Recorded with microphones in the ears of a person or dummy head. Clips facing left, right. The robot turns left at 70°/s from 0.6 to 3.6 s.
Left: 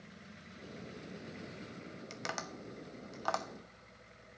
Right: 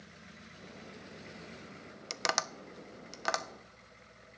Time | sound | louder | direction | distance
2.1 | tapping | right 7 dB | 65° right (ahead or behind) | 0.5 m